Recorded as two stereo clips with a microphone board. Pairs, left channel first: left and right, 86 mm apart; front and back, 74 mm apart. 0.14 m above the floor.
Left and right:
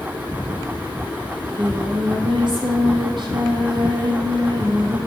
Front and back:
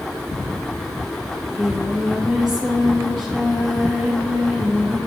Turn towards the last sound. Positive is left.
turn(degrees=-90)